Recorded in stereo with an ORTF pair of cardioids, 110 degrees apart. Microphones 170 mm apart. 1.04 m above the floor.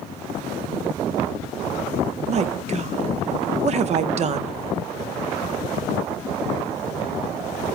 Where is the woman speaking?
40° right, 0.5 m.